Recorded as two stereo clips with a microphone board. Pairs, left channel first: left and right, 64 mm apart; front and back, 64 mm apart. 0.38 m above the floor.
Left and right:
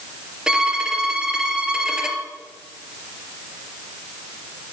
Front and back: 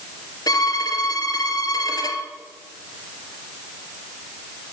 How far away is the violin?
About 2.5 m.